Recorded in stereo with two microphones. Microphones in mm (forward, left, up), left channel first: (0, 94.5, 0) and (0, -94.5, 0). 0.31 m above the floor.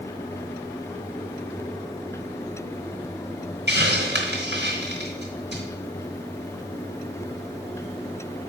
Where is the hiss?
60° right (ahead or behind), 3.5 m.